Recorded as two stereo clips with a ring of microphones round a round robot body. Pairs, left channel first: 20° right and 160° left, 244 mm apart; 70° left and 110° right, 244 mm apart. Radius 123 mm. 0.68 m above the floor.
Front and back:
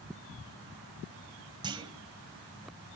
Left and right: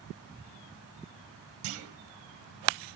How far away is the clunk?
About 1.9 m.